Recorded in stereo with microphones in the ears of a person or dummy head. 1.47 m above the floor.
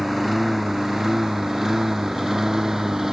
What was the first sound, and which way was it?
A lawn mower, centre (ahead or behind).